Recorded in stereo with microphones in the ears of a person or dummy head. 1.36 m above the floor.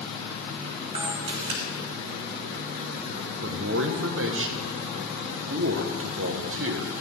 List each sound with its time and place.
0.9 s a camera shutter: 30° right (ahead or behind), 2.5 m
3.4 s a man speaking: 70° right (ahead or behind), 1.1 m